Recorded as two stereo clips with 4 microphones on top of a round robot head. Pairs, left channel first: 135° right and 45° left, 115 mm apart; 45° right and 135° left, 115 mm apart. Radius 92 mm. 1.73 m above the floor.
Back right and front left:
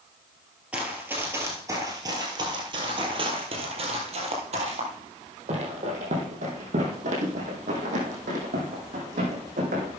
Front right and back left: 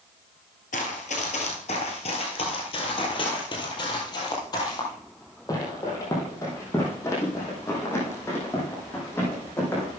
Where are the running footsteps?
35° right, 2 m; by 10.0 s 30° left, 5.5 m.